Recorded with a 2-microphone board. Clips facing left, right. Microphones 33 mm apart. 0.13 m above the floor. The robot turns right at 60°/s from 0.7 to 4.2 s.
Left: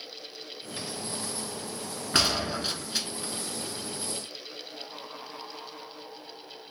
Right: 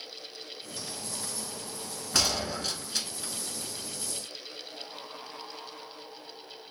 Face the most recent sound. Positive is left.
turn(degrees=-130)